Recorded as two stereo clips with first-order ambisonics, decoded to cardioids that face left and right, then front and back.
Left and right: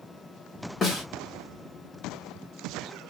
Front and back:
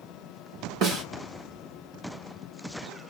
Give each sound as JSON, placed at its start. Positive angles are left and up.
{"t": 0.8, "sound": "a snare drum", "azimuth_deg": 150, "distance_m": 1.8}